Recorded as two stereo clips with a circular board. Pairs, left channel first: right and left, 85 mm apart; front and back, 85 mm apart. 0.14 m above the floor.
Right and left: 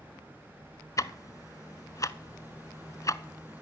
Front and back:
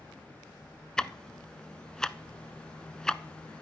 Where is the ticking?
80° right, 0.6 m.